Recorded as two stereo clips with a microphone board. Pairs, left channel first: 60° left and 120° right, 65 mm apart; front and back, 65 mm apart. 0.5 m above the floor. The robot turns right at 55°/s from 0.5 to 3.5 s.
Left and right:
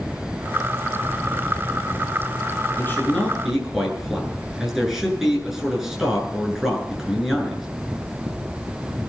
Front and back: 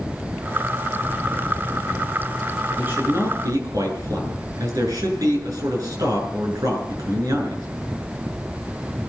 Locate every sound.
2.8 s a man speaking: 115° left, 8.5 m; by 7.7 s 155° left, 8.5 m